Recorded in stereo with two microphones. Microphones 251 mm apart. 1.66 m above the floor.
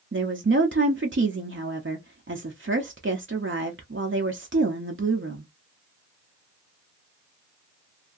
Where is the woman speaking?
50° right (ahead or behind), 0.6 m.